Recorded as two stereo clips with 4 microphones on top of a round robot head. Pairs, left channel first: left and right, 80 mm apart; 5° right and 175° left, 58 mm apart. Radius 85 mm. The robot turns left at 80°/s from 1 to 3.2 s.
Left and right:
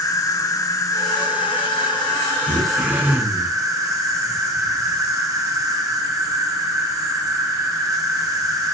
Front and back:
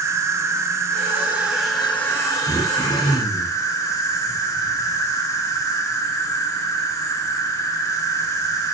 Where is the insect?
135° left, 2.5 m; by 8.8 s 40° right, 2.5 m.